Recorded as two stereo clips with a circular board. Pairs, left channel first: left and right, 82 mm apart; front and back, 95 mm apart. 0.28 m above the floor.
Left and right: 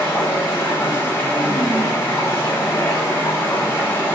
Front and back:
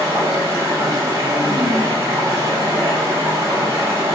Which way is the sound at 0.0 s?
140° left.